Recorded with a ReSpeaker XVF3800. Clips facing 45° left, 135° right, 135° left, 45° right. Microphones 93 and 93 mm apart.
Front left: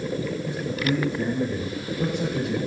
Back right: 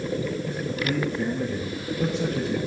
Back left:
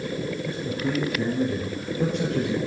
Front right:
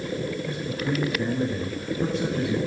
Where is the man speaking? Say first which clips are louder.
Front left 2 dB, back left 1 dB; 115° left, 6.5 m; by 2.6 s 125° left, 5.5 m.